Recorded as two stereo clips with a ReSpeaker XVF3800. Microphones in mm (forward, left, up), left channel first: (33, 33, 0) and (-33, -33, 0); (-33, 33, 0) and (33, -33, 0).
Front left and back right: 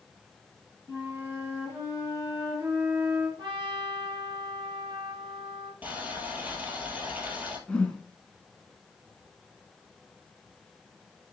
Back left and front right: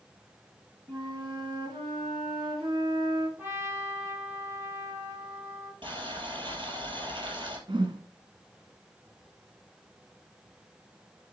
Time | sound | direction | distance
0.9 | a flute | 75° right | 3.5 m
3.4 | a trumpet | 110° right | 3 m
5.8 | boiling | 65° right | 3 m
7.7 | a whoosh | 30° right | 1.3 m